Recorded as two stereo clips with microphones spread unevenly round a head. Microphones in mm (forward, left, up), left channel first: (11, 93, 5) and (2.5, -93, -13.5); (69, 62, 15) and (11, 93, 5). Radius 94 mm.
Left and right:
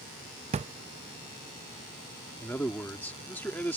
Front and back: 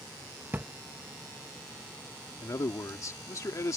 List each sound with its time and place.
0.5 s a drawer: 140° right
2.4 s a man speaking: 5° left